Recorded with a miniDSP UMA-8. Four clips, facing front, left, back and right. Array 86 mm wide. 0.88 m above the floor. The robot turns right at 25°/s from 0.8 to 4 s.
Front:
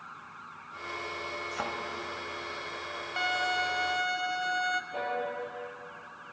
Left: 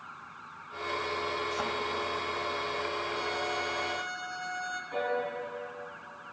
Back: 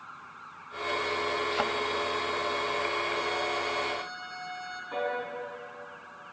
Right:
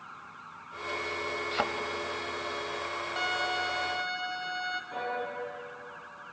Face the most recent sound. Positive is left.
turn(degrees=180)